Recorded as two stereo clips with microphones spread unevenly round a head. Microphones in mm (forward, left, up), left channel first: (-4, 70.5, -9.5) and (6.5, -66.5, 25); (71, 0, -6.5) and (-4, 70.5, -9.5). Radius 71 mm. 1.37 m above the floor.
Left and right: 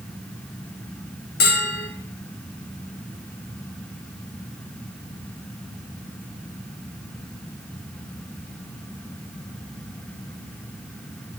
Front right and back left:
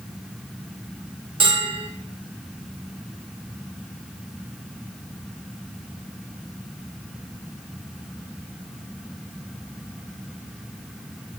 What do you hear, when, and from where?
1.4 s a bell: 100° left, 1.7 m